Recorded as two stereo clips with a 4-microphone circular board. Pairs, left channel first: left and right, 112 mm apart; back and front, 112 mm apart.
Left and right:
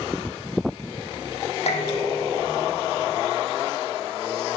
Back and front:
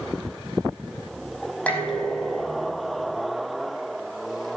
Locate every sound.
1.7 s dishes clattering: 105° left, 4.5 m